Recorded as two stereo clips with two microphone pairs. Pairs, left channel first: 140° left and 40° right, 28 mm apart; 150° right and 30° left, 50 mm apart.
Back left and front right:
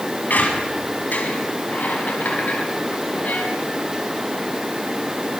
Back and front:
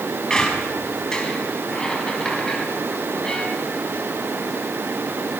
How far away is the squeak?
About 4 m.